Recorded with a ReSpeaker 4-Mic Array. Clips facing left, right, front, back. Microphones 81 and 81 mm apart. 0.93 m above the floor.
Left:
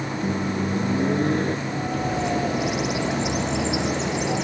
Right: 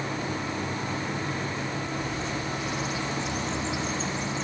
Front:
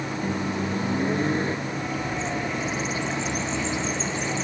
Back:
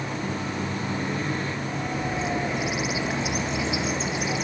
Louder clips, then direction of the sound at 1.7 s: Left 6 dB, even; 100° left.